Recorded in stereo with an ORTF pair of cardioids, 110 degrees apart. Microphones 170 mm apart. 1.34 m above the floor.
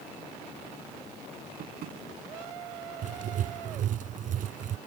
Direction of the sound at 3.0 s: 60° right.